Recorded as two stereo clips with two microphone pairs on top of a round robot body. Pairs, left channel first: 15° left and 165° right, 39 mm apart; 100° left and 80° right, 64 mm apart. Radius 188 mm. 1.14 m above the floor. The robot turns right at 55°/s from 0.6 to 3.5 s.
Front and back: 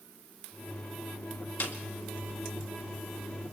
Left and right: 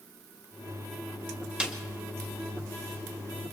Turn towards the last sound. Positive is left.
turn(degrees=95)